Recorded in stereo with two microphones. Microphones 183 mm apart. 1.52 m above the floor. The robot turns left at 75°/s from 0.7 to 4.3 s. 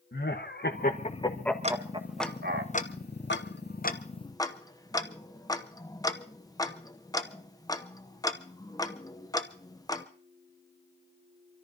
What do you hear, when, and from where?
0.1 s laughter: 65° left (ahead or behind), 1.6 m; by 2.6 s 75° right (ahead or behind), 1.6 m
1.6 s ticking: 40° right (ahead or behind), 0.9 m; by 10.1 s 20° left (ahead or behind), 0.9 m